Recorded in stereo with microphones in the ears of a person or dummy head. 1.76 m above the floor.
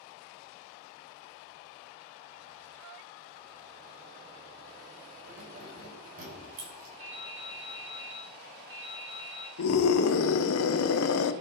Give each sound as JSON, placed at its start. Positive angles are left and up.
{"t": 5.3, "sound": "keys jangling", "side_deg": -80, "distance_m": 5.5}
{"t": 7.0, "sound": "dripping", "side_deg": -75, "distance_m": 6.0}
{"t": 9.6, "sound": "a scream", "side_deg": 85, "distance_m": 1.2}